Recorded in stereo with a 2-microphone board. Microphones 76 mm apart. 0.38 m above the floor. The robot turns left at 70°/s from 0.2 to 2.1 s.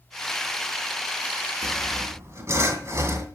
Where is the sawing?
110° right, 2.5 m; by 3.3 s 140° right, 2.5 m.